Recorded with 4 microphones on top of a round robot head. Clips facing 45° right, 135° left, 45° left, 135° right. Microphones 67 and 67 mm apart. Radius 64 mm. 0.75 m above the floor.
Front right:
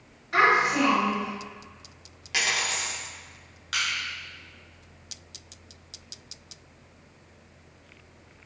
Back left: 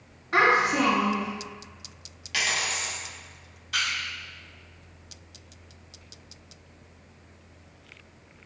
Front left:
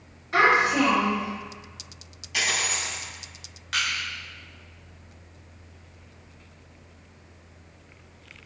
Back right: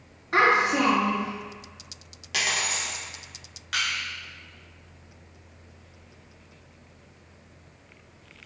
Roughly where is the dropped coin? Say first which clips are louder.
Front right 1 dB, front left 1 dB; behind right.